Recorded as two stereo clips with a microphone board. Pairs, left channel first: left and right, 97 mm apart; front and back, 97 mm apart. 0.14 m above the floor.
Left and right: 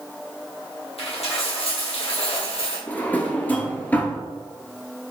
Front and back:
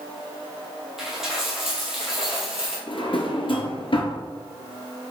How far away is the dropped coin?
About 1.7 m.